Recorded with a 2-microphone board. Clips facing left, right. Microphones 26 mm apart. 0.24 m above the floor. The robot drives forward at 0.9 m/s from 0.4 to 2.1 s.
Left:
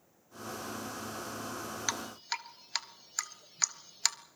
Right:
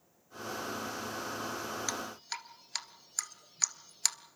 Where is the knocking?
I don't hear knocking.